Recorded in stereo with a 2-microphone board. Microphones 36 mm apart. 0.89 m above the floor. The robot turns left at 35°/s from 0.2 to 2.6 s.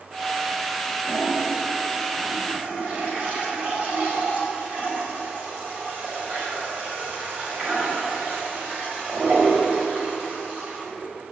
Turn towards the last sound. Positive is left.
turn(degrees=-140)